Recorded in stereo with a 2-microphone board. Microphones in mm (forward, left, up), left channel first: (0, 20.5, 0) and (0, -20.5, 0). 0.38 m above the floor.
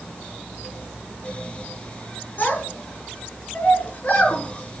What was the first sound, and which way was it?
A child speaking, 45° left (ahead or behind).